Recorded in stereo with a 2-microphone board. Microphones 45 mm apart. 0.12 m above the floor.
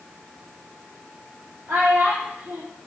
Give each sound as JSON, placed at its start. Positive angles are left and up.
{"t": 1.7, "sound": "a child speaking", "side_deg": -75, "distance_m": 5.0}